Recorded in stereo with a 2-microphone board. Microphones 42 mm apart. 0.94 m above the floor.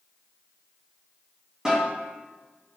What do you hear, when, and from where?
1.6 s a snare drum: 15° right (ahead or behind), 1.5 m